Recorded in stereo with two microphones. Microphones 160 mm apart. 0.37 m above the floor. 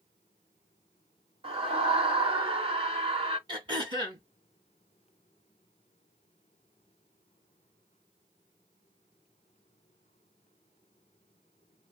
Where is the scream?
35° right (ahead or behind), 1.0 m.